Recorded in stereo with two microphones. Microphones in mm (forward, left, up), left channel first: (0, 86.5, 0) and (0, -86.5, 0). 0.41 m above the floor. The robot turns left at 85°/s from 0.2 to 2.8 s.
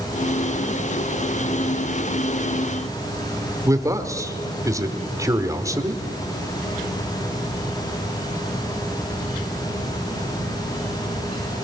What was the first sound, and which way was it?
A man speaking, 20° right (ahead or behind).